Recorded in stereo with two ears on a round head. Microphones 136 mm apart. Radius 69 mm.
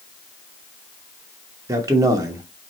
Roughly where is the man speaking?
Right.